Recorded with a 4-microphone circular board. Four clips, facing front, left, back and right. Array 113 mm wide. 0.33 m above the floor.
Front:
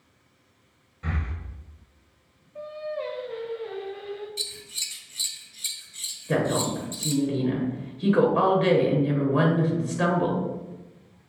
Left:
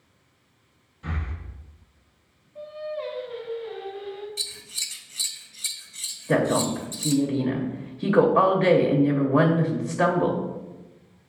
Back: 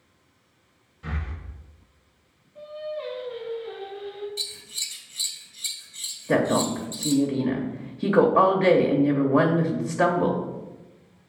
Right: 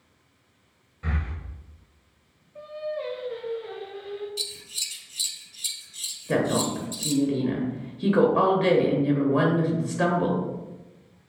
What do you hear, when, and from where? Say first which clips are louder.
1.0 s breathing: right 1 dB, front 2 dB; 55° right, 1.7 m
2.5 s singing: right 1 dB, front 1 dB; 25° right, 1.8 m
4.4 s scissors: right 2 dB, front 1 dB; 90° left, 0.9 m
6.3 s a woman speaking: left 2 dB, back 3 dB; 150° left, 0.9 m